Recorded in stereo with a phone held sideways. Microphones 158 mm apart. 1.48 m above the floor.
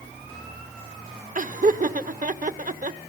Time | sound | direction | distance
1.4 | laughter | 60° right (ahead or behind) | 1.1 m